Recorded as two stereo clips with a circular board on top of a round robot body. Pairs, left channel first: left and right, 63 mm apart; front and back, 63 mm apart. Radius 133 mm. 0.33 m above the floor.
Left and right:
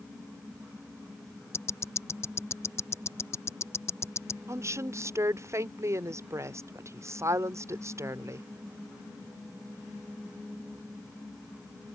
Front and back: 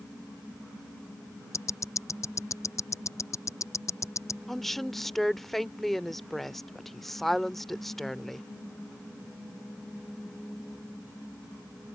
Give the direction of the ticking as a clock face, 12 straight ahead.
11 o'clock.